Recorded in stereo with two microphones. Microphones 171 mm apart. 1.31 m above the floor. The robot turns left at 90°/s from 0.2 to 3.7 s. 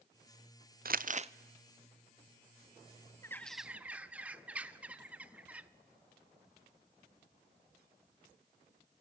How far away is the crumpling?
About 0.6 m.